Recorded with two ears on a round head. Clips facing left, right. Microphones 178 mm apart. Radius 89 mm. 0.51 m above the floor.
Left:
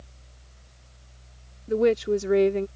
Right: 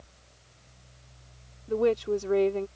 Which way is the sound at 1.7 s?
25° left (ahead or behind).